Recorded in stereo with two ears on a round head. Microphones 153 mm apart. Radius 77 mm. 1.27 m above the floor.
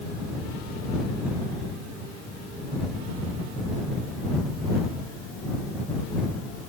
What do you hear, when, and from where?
Only background noise.